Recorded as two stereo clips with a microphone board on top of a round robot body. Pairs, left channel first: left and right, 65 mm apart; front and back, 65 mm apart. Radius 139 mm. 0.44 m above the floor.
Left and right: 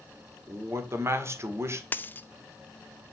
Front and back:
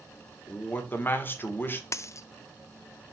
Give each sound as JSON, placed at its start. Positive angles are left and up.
{"t": 0.5, "sound": "a man speaking", "azimuth_deg": -50, "distance_m": 1.8}
{"t": 1.9, "sound": "a dropped coin", "azimuth_deg": 30, "distance_m": 0.6}